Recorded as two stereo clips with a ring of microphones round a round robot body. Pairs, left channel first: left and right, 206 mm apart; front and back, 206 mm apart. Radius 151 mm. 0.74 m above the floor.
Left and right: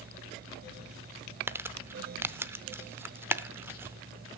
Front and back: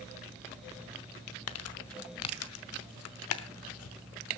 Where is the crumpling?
10° right, 0.9 m.